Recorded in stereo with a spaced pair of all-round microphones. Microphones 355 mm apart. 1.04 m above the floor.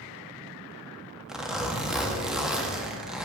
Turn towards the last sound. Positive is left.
turn(degrees=0)  # may be behind; listen again after turning